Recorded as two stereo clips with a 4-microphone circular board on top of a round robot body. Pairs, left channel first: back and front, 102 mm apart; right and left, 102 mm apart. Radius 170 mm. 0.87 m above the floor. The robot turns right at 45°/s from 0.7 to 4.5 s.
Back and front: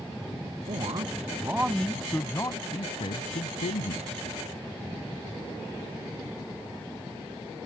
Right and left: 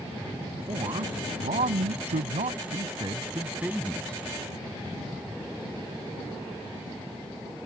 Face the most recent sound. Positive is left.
turn(degrees=-155)